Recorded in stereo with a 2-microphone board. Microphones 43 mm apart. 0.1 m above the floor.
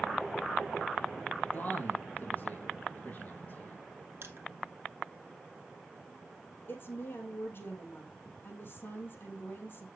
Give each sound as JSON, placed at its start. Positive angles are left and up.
{"t": 1.5, "sound": "a man speaking", "side_deg": 40, "distance_m": 3.5}
{"t": 4.2, "sound": "crushing", "side_deg": -65, "distance_m": 1.5}
{"t": 6.7, "sound": "a woman speaking", "side_deg": 50, "distance_m": 3.0}